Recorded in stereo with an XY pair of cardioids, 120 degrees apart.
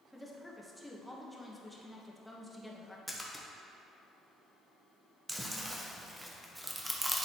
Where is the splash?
5° left, 1.1 m.